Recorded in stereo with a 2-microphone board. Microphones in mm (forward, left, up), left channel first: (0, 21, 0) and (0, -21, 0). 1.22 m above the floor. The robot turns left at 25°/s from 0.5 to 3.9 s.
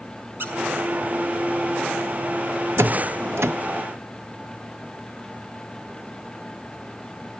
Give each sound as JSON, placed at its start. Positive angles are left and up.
{"t": 0.4, "sound": "a squeak", "side_deg": -55, "distance_m": 4.5}
{"t": 2.8, "sound": "a door slam", "side_deg": -70, "distance_m": 1.0}